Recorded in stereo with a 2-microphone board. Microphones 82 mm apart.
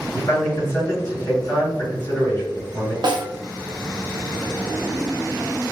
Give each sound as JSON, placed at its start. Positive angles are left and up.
{"t": 0.1, "sound": "a man speaking", "side_deg": 35, "distance_m": 1.8}
{"t": 3.0, "sound": "a snare drum", "side_deg": -60, "distance_m": 0.6}